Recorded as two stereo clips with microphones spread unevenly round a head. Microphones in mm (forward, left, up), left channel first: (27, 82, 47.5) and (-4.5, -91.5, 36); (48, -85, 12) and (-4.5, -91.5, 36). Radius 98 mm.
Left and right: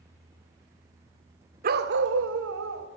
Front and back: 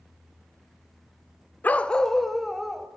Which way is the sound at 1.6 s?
60° right.